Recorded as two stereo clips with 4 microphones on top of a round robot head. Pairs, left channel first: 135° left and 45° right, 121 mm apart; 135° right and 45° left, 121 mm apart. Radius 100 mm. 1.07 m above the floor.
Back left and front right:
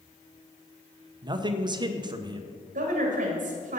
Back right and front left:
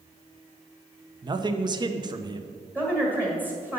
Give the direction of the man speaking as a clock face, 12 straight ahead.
12 o'clock.